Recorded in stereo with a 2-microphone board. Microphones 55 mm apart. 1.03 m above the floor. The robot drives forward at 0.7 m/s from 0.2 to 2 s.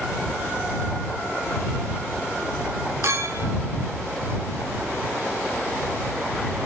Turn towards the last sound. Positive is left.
turn(degrees=-60)  # may be behind; listen again after turning